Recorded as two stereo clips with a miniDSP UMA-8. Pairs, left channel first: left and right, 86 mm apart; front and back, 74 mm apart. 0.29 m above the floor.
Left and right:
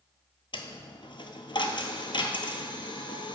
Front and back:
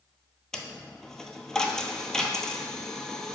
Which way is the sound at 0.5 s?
80° left.